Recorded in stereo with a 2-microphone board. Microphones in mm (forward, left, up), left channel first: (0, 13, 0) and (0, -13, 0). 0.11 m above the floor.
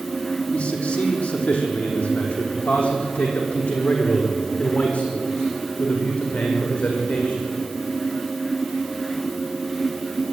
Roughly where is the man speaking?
Left.